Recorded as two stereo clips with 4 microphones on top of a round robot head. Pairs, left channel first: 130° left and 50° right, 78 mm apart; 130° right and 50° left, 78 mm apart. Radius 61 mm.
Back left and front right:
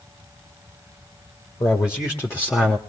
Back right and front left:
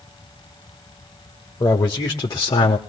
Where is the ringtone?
No ringtone in this recording.